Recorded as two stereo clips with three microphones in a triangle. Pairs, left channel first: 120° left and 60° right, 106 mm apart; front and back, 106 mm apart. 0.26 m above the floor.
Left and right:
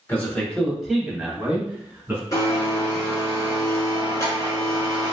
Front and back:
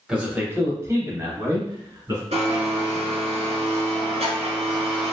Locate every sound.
0.1 s a man speaking: 105° left, 0.9 m; by 2.2 s 130° right, 2.0 m
2.3 s a blender: straight behind, 1.3 m